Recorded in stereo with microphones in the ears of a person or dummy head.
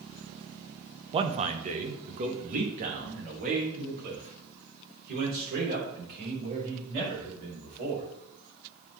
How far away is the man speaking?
About 0.7 m.